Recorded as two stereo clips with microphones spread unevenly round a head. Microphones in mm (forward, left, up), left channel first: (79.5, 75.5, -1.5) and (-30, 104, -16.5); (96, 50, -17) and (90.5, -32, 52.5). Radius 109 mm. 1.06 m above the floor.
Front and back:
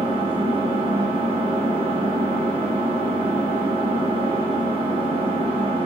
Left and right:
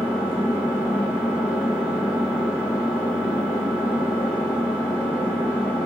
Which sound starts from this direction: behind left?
An engine running, at 0.0 s.